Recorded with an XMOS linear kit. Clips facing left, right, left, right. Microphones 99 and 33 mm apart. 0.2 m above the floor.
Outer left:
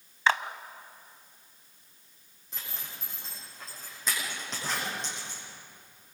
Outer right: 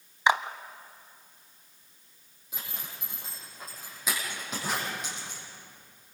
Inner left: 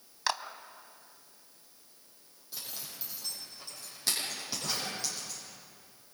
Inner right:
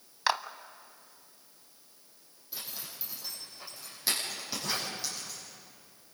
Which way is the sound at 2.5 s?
10° right (ahead or behind).